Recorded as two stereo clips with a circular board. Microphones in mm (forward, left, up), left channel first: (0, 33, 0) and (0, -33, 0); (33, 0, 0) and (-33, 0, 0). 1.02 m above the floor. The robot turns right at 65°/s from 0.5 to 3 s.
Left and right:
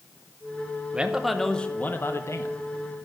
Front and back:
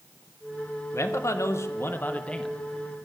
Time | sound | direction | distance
0.9 | a man speaking | 25° right | 0.6 m